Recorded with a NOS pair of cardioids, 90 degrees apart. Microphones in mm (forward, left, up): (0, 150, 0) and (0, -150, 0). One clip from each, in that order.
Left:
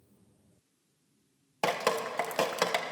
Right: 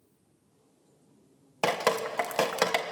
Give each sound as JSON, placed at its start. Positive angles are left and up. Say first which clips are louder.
{"t": 1.6, "sound": "dripping", "louder": "right 2 dB", "azimuth_deg": -15, "distance_m": 1.4}